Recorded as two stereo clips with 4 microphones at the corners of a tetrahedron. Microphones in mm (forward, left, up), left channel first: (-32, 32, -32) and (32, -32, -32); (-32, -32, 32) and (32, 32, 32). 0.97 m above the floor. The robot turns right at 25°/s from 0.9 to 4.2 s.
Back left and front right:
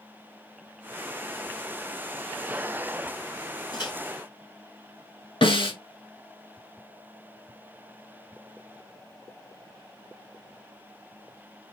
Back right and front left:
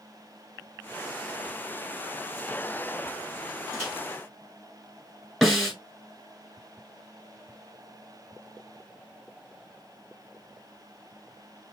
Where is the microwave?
100° left, 2.5 m; by 3.9 s 105° left, 2.5 m.